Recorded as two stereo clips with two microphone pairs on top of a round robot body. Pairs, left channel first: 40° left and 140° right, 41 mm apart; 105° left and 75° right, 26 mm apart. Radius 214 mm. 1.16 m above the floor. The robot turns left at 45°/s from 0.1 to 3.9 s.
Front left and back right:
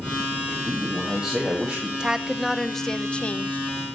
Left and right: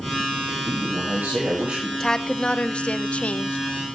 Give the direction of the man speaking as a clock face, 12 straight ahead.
1 o'clock.